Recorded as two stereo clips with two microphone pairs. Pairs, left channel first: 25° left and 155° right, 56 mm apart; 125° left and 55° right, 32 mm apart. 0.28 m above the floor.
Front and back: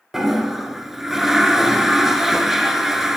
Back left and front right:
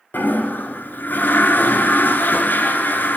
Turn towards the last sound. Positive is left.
turn(degrees=120)